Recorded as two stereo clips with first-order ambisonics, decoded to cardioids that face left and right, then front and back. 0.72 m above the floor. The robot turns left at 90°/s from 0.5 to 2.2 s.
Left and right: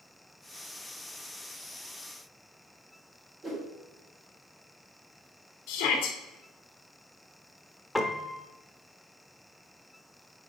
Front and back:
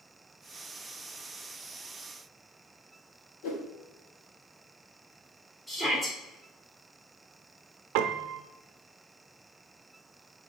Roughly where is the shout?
Left.